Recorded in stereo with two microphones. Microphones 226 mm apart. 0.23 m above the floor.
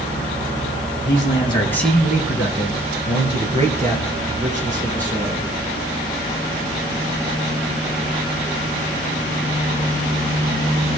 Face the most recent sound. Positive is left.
turn(degrees=-35)  # may be behind; listen again after turning